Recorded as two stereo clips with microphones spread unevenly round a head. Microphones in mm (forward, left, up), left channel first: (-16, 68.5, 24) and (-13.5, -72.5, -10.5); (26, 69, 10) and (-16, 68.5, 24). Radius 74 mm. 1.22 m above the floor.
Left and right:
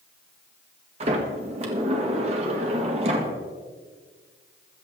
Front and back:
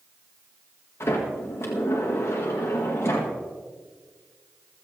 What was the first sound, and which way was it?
A sliding door, 40° right.